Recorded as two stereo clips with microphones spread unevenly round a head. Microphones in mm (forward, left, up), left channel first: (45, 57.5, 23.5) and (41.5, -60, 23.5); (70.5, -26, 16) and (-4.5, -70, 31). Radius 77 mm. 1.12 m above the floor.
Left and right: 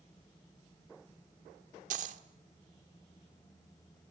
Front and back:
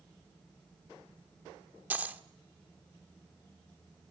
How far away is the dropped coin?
About 1.4 m.